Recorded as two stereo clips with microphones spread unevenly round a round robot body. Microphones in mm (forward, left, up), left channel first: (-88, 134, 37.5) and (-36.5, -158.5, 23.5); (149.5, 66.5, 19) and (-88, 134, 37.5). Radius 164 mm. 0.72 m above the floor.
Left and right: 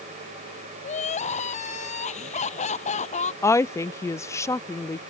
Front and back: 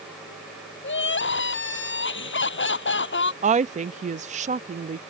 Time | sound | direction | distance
0.8 | crying | 30° left | ?
3.4 | a woman speaking | 175° left | ?